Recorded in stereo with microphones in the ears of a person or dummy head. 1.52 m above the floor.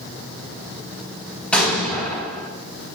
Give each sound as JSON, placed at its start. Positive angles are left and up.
{"t": 1.5, "sound": "an explosion", "side_deg": 10, "distance_m": 3.5}